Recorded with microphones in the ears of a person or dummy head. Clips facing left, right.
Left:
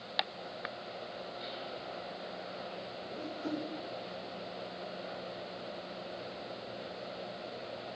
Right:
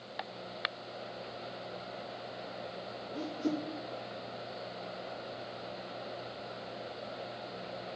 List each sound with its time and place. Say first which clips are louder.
3.1 s a whoosh: right 4 dB; 45° right (ahead or behind), 4.5 m